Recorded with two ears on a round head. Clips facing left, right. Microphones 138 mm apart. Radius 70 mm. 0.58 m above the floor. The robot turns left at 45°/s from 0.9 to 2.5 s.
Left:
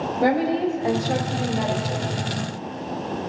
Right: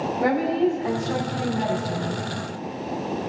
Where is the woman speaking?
140° left, 4 m; by 2.2 s 80° left, 4 m.